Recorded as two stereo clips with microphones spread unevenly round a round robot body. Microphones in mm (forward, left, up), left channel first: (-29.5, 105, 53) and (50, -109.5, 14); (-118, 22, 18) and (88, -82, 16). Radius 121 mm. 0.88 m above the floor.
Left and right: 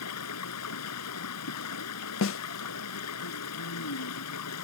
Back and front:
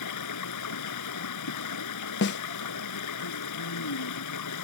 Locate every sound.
0.0 s running water: 135° left
2.2 s a snare drum: 130° left